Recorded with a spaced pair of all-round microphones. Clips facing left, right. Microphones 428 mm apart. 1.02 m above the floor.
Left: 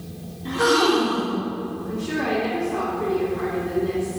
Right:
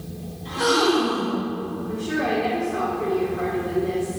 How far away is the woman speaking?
About 3 m.